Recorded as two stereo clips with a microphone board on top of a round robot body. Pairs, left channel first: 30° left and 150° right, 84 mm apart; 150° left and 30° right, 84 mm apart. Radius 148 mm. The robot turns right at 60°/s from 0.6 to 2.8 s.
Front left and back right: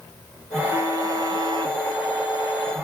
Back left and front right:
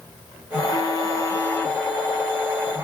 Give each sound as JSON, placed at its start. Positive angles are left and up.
{"t": 0.5, "sound": "a phone buzzing", "azimuth_deg": 145, "distance_m": 1.1}